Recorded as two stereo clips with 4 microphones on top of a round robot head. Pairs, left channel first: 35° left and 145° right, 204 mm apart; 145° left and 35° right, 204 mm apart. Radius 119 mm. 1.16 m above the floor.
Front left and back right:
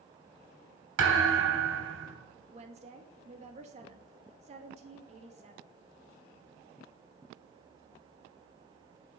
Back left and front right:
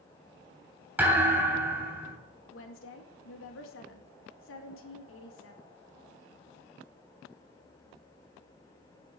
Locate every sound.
1.0 s a thud: 120° right, 3 m
2.5 s a woman speaking: 160° left, 2.0 m